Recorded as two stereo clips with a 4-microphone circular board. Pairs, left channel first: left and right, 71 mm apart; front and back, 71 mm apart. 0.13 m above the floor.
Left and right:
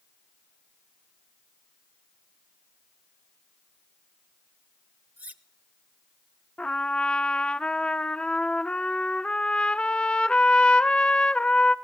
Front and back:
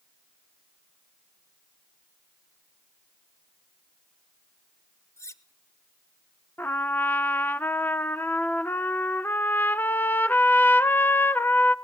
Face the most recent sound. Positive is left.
turn(degrees=30)